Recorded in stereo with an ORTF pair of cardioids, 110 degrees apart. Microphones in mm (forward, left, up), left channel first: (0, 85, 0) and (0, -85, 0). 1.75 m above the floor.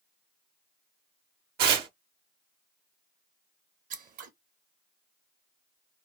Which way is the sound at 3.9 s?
55° right.